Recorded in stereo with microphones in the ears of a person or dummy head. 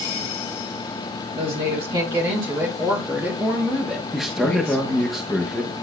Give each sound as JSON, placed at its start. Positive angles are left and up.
{"t": 1.4, "sound": "a woman speaking", "side_deg": -30, "distance_m": 2.5}
{"t": 4.1, "sound": "a man speaking", "side_deg": 0, "distance_m": 1.3}